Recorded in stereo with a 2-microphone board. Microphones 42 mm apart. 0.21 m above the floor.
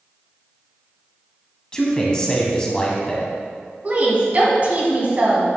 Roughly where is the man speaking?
Centre.